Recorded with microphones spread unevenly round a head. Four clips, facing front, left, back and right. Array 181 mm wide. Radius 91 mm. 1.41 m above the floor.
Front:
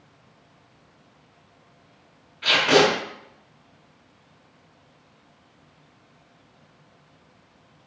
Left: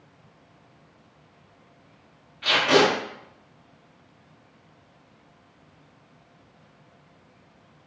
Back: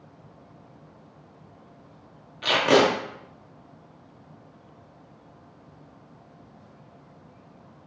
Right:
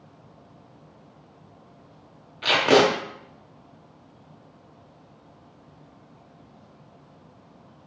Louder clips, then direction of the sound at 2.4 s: Right 2 dB, front 1 dB; 125° right.